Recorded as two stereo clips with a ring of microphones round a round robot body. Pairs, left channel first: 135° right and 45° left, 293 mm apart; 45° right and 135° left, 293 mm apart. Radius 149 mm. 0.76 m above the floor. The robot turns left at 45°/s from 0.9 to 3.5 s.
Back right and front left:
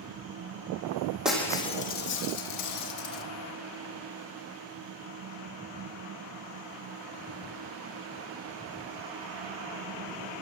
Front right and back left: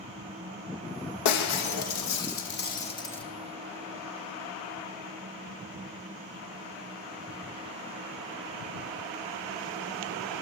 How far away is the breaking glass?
About 5.5 m.